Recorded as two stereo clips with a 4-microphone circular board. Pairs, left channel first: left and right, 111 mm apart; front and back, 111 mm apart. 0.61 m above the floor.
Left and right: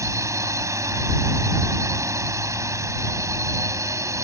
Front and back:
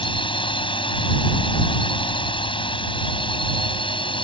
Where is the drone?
30° right.